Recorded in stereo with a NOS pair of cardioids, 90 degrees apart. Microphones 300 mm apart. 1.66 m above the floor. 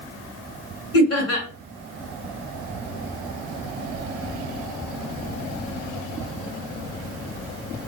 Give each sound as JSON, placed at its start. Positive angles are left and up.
{"t": 0.9, "sound": "laughter", "azimuth_deg": 55, "distance_m": 2.5}